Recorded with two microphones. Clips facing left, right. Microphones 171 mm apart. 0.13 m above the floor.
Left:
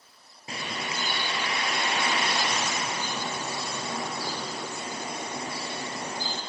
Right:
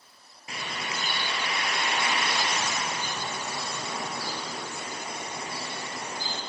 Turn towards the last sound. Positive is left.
turn(degrees=30)  # may be behind; listen again after turning